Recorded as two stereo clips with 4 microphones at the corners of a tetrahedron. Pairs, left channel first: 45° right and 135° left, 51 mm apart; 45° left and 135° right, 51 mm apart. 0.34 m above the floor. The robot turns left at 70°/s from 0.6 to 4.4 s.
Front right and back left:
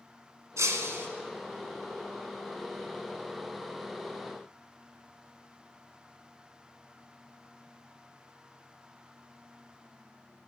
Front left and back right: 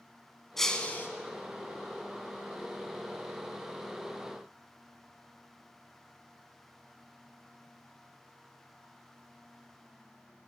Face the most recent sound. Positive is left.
turn(degrees=-140)